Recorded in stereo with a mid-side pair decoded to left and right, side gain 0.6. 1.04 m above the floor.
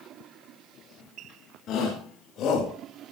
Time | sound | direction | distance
1.7 | a shout | 55° left | 4.5 m